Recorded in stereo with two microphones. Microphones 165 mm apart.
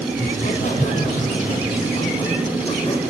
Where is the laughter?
60° left (ahead or behind), 3 m; by 3.0 s 35° left (ahead or behind), 5 m.